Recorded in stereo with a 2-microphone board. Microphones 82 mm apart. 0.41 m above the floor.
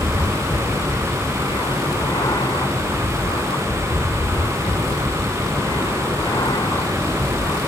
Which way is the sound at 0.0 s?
60° left (ahead or behind).